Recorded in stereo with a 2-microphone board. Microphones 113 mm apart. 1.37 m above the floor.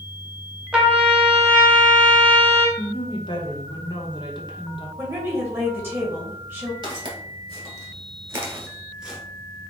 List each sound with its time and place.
0.7 s a trumpet: 5° right (ahead or behind), 1.1 m
2.8 s a woman speaking: 45° left (ahead or behind), 1.0 m
5.0 s a woman speaking: 20° right (ahead or behind), 1.9 m
6.8 s footsteps: 40° right (ahead or behind), 2.0 m; by 9.2 s 5° right (ahead or behind), 1.3 m